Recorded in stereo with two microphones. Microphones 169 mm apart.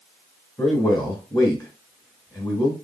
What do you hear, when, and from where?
0.6 s a man speaking: 25° left (ahead or behind), 1.8 m